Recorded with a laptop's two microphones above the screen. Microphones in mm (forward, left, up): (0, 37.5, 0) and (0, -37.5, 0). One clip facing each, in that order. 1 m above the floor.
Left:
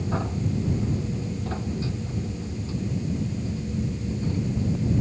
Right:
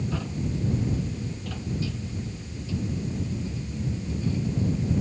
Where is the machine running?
35° left (ahead or behind).